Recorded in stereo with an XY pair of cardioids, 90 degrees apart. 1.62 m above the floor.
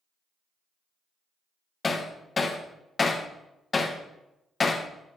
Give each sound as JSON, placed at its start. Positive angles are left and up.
{"t": 1.8, "sound": "hammering", "azimuth_deg": 35, "distance_m": 1.6}